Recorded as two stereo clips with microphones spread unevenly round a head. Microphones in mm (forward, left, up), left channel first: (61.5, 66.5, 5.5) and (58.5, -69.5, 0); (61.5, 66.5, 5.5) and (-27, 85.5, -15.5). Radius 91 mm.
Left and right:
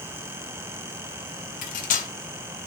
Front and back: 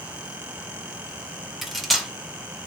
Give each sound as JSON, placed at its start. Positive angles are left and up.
{"t": 1.6, "sound": "cutlery clinking", "azimuth_deg": 75, "distance_m": 0.5}